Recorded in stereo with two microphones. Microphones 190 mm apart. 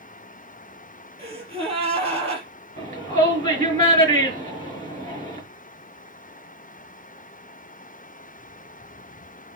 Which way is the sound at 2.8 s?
35° right (ahead or behind).